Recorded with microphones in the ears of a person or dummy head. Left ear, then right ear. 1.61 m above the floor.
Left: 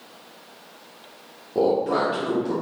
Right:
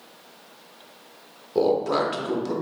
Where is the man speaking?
30° right (ahead or behind), 0.7 m.